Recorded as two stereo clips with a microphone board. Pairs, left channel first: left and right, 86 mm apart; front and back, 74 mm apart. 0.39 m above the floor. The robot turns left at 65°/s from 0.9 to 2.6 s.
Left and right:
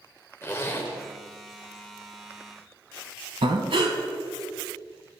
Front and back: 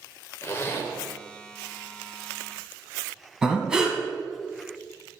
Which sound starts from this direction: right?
Breathing, at 3.4 s.